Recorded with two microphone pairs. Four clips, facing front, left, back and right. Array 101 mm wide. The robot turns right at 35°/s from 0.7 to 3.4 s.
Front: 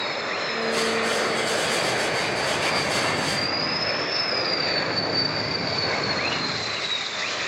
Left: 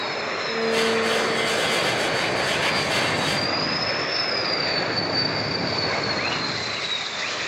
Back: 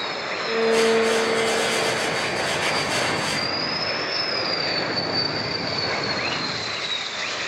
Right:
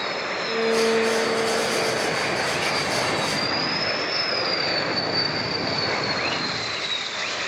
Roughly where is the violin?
Behind.